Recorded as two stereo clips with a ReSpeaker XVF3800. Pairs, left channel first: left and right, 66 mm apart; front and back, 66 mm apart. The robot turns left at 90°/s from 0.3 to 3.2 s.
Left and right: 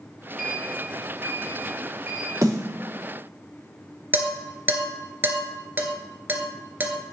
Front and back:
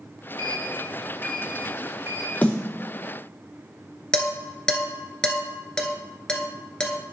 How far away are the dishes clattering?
About 1.2 m.